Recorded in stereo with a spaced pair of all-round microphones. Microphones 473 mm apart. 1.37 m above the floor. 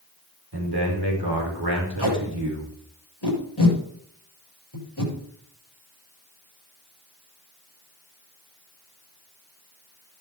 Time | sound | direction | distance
0.5 | a man speaking | 60° right (ahead or behind) | 4.5 m
2.0 | tape being pulled | 60° left (ahead or behind) | 6 m